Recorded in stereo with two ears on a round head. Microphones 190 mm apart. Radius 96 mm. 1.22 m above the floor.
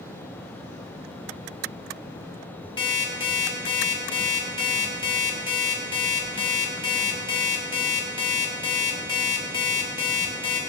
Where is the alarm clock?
20° left (ahead or behind), 2.5 m.